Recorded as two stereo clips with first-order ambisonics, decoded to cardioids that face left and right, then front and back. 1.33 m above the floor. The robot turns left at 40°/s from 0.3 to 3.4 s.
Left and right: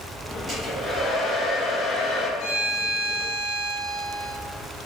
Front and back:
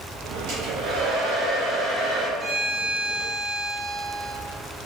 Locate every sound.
0.5 s a hair dryer: 160° right, 1.9 m; by 2.3 s 130° left, 1.9 m
2.4 s a violin: 110° left, 2.0 m; by 4.3 s 70° left, 2.0 m